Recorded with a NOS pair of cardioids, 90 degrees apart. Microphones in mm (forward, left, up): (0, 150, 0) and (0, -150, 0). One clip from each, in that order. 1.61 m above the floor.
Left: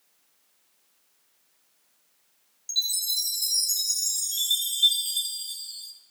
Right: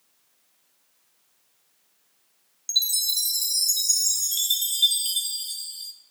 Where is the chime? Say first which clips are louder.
Right 3 dB; 35° right, 1.5 m.